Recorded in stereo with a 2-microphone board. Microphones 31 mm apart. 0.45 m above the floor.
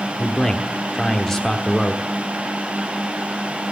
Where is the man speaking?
5° left (ahead or behind), 1.2 m.